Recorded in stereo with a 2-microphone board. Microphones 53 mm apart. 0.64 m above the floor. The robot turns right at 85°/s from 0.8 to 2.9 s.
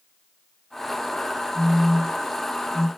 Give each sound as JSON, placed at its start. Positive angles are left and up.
{"t": 1.6, "sound": "a phone buzzing", "side_deg": -65, "distance_m": 0.8}